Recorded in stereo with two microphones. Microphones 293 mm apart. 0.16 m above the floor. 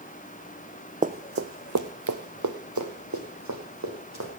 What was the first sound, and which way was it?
Running footsteps, 25° right (ahead or behind).